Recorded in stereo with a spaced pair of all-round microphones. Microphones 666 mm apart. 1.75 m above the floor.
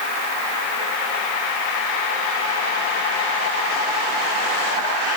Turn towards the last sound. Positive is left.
No sound to turn to.